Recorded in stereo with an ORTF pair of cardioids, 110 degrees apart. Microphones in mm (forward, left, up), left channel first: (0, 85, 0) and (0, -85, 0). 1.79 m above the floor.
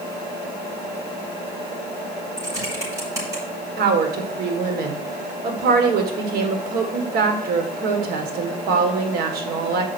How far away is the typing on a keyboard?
About 5.5 m.